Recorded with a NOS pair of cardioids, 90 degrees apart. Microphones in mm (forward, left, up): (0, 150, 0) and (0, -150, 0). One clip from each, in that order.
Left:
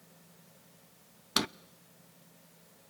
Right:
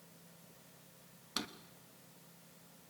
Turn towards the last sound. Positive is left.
turn(degrees=50)